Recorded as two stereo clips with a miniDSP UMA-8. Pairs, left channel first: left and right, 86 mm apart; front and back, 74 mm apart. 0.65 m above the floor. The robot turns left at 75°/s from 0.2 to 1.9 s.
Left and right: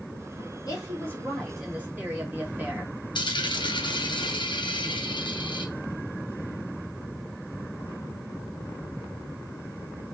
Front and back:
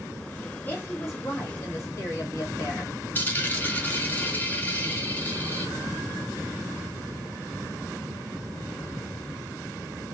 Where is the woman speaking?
60° left, 1.6 m; by 3.0 s 30° right, 1.6 m.